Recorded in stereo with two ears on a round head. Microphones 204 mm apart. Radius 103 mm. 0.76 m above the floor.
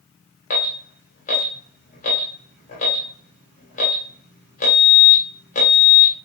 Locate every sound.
0.5 s an alarm: 35° left (ahead or behind), 1.2 m